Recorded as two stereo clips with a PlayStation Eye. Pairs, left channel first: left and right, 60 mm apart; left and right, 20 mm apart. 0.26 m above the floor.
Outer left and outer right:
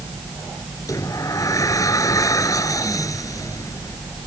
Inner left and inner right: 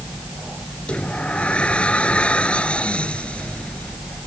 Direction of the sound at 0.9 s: 75° left (ahead or behind).